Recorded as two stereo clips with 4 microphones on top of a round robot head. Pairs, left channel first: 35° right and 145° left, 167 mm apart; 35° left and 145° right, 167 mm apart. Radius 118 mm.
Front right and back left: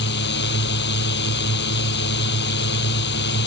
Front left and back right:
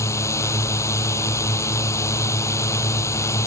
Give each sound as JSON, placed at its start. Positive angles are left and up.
{"t": 0.0, "sound": "a drone", "azimuth_deg": -35}